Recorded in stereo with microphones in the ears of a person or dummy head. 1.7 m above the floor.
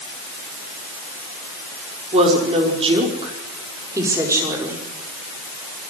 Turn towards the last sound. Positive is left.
turn(degrees=-5)  # may be behind; listen again after turning